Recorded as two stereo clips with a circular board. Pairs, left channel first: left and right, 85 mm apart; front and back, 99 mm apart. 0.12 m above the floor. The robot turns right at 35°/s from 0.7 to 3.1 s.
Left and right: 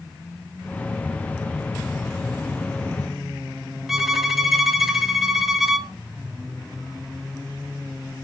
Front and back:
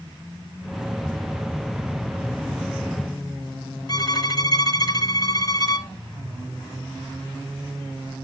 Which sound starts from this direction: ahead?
A violin, at 3.9 s.